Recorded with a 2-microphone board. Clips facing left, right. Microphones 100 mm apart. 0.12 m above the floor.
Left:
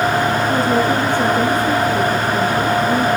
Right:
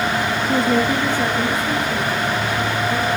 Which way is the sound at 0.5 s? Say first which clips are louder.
Left 2 dB; 5° right (ahead or behind).